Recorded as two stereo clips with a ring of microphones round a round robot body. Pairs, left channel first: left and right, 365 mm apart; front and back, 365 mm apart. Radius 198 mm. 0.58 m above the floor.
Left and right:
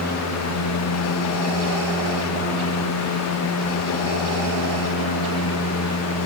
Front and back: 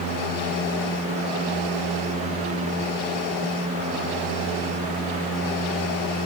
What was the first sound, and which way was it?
Only background noise.